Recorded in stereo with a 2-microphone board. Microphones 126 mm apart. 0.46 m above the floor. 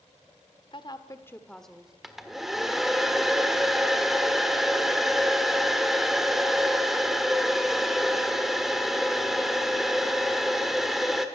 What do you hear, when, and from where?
0.7 s a woman speaking: 40° left (ahead or behind), 1.3 m; by 1.9 s 5° right (ahead or behind), 1.5 m
2.0 s a hair dryer: 5° right (ahead or behind), 1.5 m